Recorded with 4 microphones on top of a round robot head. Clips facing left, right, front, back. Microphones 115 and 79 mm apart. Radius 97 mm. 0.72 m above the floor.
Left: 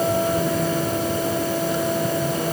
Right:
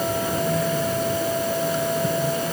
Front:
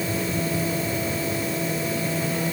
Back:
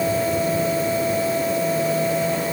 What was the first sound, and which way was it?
Only background noise.